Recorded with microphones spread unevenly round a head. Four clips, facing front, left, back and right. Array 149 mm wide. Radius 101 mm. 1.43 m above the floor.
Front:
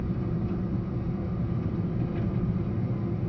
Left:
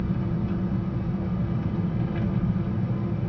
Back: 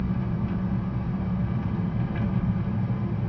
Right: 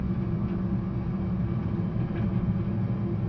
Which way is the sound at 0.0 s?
135° left.